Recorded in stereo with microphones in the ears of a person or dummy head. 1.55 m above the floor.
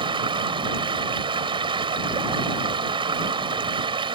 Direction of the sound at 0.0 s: 20° right (ahead or behind).